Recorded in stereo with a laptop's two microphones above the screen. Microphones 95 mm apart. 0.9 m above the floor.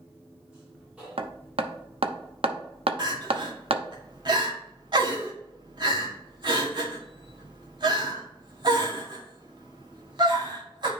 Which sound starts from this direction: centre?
A machine running, at 0.0 s.